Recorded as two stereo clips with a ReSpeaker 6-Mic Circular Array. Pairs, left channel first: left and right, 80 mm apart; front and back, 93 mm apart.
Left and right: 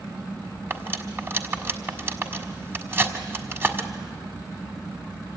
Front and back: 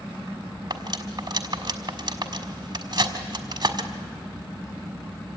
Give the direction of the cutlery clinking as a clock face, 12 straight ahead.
5 o'clock.